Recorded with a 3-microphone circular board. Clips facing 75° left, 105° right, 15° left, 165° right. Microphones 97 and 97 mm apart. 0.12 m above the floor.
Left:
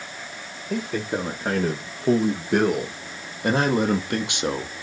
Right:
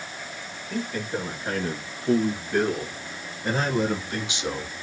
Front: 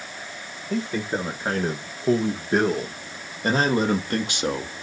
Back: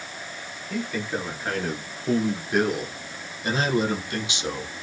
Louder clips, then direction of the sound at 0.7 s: Left 3 dB, front 3 dB; 80° left.